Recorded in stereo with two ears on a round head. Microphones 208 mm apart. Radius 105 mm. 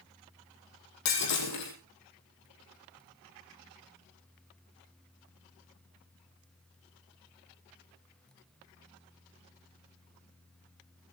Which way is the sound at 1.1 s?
80° left.